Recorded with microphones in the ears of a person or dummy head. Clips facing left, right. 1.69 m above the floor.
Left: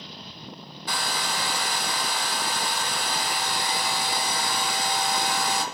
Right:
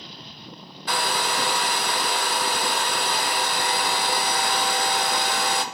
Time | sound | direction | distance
0.9 | a hair dryer | 50° right (ahead or behind) | 0.5 m